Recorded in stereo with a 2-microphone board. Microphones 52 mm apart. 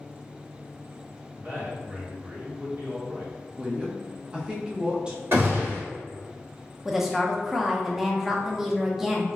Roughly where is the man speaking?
Right.